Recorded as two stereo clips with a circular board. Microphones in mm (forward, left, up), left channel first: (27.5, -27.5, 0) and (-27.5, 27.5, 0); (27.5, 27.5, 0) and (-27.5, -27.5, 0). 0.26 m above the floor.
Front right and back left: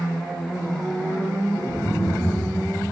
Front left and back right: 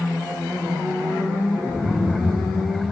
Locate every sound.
1.7 s laughter: 25° left, 1.8 m; by 2.8 s straight ahead, 1.9 m